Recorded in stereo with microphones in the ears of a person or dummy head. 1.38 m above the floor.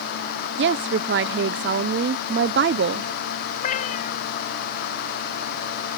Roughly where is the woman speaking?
Right.